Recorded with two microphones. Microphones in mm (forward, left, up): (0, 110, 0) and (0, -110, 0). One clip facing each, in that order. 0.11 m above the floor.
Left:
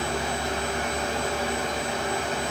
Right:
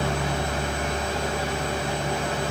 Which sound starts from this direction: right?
A helicopter, at 0.0 s.